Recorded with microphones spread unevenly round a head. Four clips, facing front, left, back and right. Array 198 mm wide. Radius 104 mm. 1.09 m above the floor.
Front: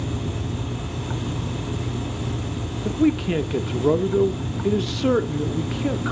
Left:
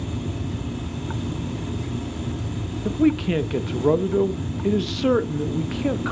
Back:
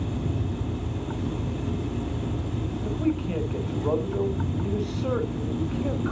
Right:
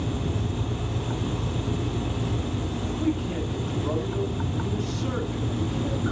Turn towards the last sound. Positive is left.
turn(degrees=40)